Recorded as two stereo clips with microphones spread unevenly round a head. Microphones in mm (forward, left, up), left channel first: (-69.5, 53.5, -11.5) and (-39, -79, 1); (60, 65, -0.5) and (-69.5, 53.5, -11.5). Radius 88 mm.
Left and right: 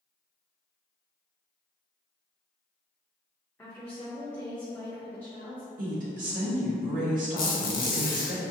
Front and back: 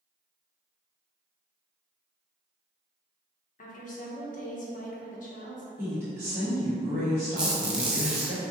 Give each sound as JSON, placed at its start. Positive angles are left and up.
{"t": 3.6, "sound": "a woman speaking", "azimuth_deg": 20, "distance_m": 1.1}
{"t": 5.8, "sound": "a woman speaking", "azimuth_deg": -100, "distance_m": 1.5}
{"t": 7.4, "sound": "a squeak", "azimuth_deg": 100, "distance_m": 1.3}